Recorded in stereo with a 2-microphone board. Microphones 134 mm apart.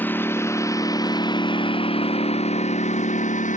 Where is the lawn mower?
15° left (ahead or behind); by 3.6 s 70° left (ahead or behind).